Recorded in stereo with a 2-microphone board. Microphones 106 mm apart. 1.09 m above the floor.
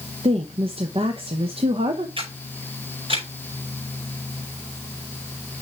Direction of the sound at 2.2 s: 60° right (ahead or behind).